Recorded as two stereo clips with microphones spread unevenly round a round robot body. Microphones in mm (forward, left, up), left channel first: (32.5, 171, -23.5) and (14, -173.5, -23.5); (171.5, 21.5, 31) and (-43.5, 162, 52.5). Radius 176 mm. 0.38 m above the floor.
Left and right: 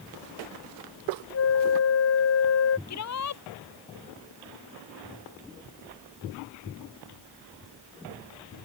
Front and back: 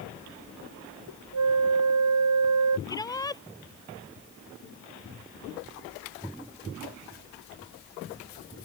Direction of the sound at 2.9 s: 45° left.